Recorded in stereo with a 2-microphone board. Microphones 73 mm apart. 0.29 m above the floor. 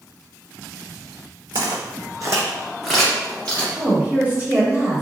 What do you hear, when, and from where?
1.5 s footsteps: 70° right (ahead or behind), 1.1 m; by 3.6 s 20° left (ahead or behind), 1.7 m
3.8 s a woman speaking: 25° right (ahead or behind), 0.9 m